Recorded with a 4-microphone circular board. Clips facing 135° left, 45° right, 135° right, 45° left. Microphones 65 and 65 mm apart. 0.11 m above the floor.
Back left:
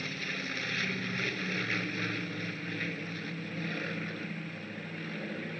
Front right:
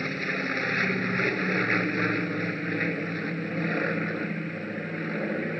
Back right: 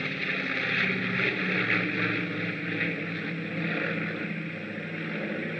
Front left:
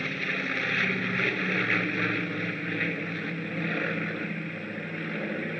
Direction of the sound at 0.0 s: 40° right.